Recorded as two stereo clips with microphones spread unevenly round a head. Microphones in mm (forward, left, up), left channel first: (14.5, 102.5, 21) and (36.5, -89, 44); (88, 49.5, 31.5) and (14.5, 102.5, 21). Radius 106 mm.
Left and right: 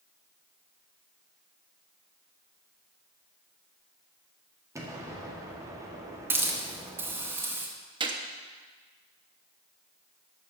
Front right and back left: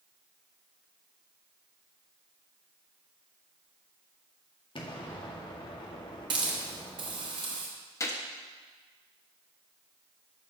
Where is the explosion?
10° right, 1.7 m.